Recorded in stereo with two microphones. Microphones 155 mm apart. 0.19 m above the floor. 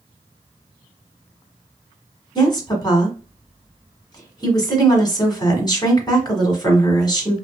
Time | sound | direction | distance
2.4 | a woman speaking | 30° left (ahead or behind) | 1.3 m